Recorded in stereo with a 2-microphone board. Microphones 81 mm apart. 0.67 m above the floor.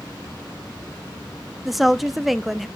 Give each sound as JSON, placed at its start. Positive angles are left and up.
{"t": 1.6, "sound": "a woman speaking", "side_deg": -5, "distance_m": 0.5}